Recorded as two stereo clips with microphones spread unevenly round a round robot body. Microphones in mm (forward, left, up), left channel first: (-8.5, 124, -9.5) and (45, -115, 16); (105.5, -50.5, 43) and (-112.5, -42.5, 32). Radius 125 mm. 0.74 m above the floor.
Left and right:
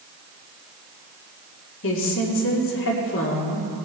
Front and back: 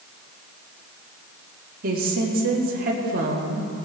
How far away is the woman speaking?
About 2 m.